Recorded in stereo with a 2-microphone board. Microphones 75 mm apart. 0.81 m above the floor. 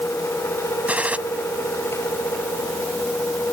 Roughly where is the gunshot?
Centre.